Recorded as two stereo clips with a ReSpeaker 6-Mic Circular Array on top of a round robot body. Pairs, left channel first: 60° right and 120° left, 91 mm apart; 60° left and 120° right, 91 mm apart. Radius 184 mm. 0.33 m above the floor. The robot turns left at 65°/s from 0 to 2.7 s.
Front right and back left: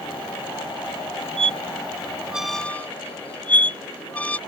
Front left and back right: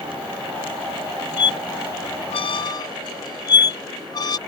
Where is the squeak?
100° left; by 4.4 s 15° left.